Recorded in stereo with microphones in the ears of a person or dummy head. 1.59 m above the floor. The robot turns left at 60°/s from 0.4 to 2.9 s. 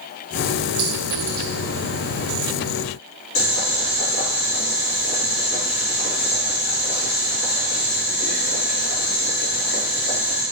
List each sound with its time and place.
0.8 s a clink: 50° right (ahead or behind), 1.0 m; by 1.5 s 60° right (ahead or behind), 1.0 m
3.4 s boiling: 50° left (ahead or behind), 1.9 m